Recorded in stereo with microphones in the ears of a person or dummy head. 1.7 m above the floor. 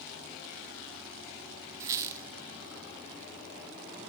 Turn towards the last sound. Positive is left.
turn(degrees=-15)  # may be behind; listen again after turning